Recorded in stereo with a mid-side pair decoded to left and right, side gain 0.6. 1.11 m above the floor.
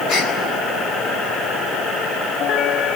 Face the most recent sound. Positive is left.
turn(degrees=60)